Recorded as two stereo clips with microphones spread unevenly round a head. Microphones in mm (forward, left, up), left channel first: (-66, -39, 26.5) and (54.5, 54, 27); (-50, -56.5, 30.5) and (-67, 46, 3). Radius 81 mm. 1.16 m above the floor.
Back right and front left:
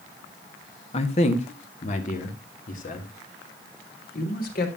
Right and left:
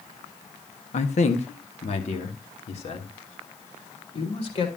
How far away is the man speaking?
About 1.7 m.